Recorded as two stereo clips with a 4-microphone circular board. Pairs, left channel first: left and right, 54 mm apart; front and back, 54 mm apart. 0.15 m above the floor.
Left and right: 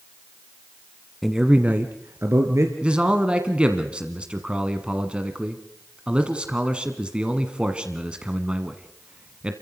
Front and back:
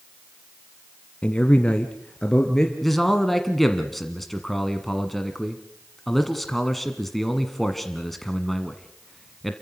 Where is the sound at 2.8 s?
80° right, 1.4 m.